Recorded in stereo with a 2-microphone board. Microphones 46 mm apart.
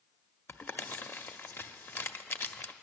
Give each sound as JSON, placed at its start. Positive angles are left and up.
{"t": 0.5, "sound": "crumpling", "side_deg": 55, "distance_m": 0.6}